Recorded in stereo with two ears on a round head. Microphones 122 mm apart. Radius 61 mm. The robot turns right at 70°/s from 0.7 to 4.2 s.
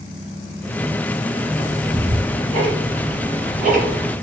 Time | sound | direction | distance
1.6 | ticking | 30° left (ahead or behind) | 2 m